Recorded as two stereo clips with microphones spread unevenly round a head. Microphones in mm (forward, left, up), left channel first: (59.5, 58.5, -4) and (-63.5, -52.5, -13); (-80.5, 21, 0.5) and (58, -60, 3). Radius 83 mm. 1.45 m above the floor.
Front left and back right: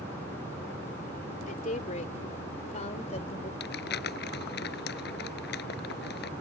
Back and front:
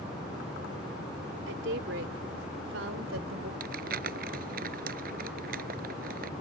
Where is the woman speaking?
5° right; by 3.5 s 10° right.